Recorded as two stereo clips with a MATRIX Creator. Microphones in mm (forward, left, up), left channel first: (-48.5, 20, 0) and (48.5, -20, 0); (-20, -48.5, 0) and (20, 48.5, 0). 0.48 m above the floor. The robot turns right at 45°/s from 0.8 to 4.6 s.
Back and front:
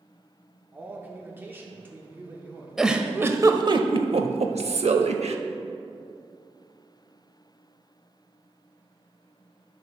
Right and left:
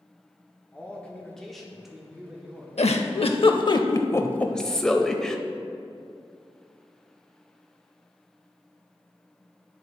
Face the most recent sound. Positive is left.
turn(degrees=-30)